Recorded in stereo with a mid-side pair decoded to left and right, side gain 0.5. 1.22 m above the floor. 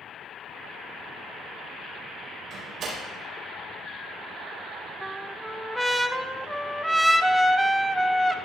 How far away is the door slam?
About 4.5 m.